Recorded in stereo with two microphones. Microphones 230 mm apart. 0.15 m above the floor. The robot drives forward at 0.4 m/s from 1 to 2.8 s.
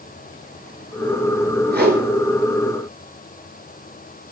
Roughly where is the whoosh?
Right.